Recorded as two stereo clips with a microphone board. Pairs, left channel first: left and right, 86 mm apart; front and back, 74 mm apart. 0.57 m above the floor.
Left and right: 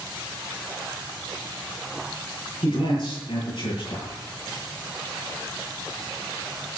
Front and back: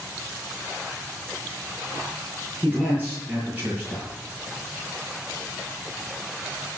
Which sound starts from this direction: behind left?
A man speaking, at 2.6 s.